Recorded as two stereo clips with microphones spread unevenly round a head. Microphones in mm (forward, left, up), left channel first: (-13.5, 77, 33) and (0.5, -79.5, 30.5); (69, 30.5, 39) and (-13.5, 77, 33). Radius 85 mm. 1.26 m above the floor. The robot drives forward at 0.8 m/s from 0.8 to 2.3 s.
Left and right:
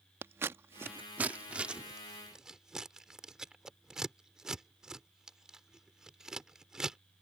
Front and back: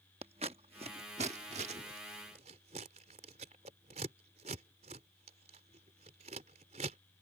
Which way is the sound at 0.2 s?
160° right.